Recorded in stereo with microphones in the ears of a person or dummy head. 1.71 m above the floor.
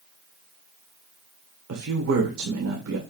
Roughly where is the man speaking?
Right.